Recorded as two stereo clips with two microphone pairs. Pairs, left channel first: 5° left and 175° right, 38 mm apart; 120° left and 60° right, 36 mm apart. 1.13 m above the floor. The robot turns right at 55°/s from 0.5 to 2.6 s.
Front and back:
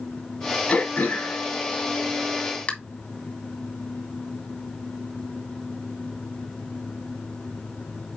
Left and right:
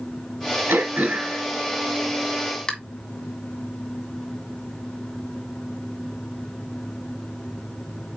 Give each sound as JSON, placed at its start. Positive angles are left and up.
{"t": 0.7, "sound": "throat clearing", "azimuth_deg": -50, "distance_m": 2.0}